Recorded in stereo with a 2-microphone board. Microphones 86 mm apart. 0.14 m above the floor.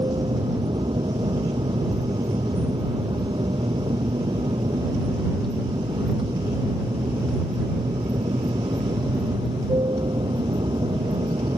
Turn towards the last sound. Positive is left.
turn(degrees=-75)  # may be behind; listen again after turning